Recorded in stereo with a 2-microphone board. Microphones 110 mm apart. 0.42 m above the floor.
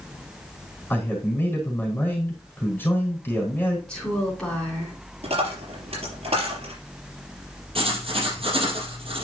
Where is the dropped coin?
65° right (ahead or behind), 4.5 m.